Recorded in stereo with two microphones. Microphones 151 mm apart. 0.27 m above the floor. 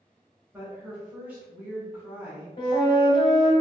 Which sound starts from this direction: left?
A flute, at 2.6 s.